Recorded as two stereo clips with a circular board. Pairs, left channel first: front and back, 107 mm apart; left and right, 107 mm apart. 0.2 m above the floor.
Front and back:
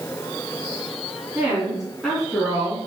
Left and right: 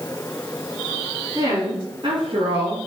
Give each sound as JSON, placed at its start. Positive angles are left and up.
{"t": 1.4, "sound": "a woman speaking", "azimuth_deg": -115, "distance_m": 1.9}